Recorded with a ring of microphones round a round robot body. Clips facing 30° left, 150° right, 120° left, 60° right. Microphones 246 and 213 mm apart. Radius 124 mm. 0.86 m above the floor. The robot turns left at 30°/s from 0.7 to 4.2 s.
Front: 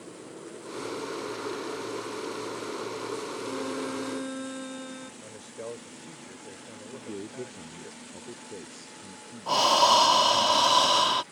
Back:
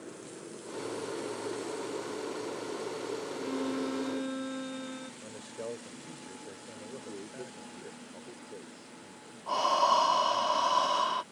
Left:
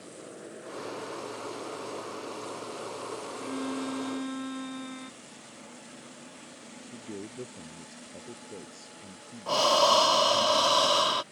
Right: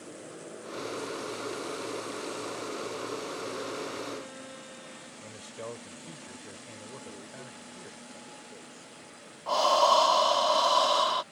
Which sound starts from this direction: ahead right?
A man speaking, at 5.2 s.